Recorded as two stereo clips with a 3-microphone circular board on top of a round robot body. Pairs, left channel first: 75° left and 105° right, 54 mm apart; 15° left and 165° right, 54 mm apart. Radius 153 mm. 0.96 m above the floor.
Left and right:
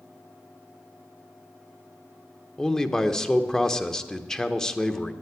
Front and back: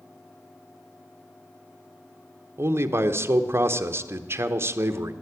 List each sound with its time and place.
2.6 s a man speaking: 155° left, 0.8 m